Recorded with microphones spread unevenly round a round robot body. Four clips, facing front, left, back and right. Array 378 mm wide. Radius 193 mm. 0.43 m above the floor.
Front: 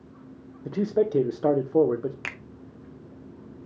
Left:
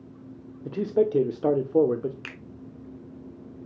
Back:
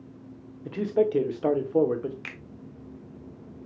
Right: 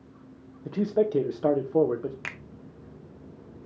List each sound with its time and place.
0.7 s a man speaking: 65° left, 0.8 m
2.2 s a finger snap: 5° left, 0.5 m